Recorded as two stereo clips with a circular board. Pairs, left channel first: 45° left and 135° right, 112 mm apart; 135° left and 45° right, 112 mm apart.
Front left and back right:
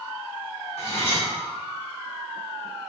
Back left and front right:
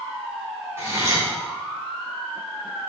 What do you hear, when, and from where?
0.8 s cutlery clinking: 20° left, 1.4 m